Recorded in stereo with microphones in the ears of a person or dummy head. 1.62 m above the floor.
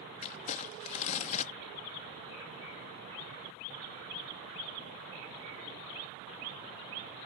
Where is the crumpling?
40° left (ahead or behind).